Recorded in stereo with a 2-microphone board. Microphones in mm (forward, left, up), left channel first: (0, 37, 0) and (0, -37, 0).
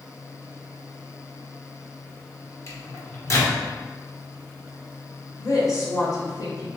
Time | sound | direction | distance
2.7 | a microwave | 40° left (ahead or behind) | 0.8 m
5.4 | a woman speaking | 55° left (ahead or behind) | 1.3 m